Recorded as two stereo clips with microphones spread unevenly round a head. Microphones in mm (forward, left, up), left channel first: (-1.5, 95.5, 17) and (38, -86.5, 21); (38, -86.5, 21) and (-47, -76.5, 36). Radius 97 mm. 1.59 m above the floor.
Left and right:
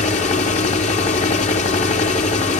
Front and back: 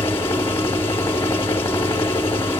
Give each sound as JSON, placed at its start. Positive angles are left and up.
{"t": 0.0, "sound": "a machine running", "azimuth_deg": 70, "distance_m": 1.3}